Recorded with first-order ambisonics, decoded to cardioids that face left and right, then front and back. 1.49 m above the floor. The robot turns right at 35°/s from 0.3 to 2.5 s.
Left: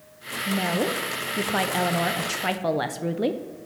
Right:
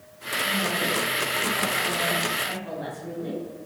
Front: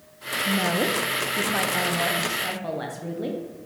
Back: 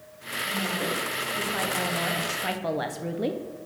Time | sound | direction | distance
0.5 | a woman speaking | 35° left | 0.5 m